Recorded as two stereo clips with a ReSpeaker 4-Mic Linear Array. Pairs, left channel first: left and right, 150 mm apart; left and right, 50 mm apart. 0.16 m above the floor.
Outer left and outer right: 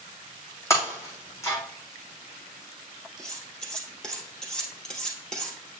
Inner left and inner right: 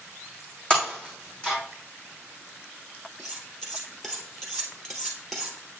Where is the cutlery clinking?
5° left (ahead or behind), 2.5 m.